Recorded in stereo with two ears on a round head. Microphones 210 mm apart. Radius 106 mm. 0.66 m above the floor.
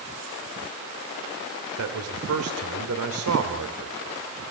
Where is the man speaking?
70° right (ahead or behind), 2.5 m.